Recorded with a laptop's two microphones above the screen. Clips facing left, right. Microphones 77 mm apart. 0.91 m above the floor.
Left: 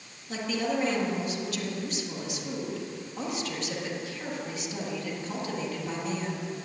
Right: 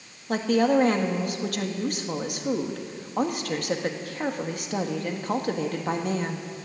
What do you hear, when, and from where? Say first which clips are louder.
0.3 s a woman speaking: right 9 dB; 55° right (ahead or behind), 1.6 m